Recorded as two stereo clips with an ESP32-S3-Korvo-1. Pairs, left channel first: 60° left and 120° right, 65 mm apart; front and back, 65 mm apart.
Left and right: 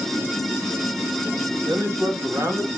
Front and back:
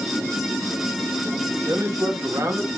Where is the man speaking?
145° right, 1.9 m.